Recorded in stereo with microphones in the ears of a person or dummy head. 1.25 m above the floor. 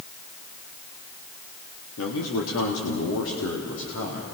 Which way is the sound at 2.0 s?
85° left.